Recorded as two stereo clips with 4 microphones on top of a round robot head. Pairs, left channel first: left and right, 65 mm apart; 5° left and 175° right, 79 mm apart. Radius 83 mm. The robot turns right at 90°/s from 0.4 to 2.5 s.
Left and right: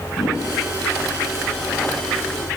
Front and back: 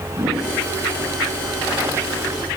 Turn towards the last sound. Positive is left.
turn(degrees=-50)